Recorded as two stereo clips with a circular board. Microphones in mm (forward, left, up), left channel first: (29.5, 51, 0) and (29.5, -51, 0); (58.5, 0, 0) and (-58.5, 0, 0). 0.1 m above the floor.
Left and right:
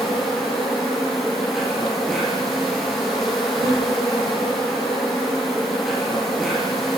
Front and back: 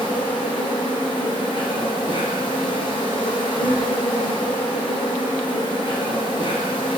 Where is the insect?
Straight ahead, 2.5 m.